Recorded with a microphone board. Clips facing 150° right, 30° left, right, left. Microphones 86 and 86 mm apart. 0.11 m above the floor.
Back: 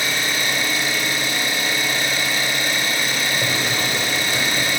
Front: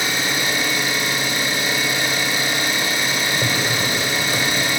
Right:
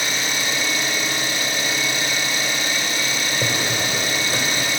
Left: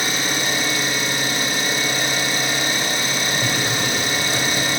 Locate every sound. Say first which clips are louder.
0.0 s an engine running: front 1 dB, left 2 dB; 95° left, 0.7 m
3.4 s a drawer: front 1 dB, left 1 dB; 55° right, 1.2 m